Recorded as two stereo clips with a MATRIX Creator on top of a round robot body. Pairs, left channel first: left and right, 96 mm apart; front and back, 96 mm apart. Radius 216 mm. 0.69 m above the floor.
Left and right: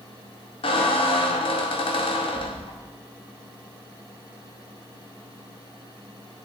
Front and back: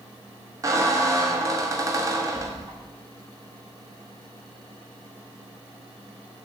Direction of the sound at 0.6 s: 120° left.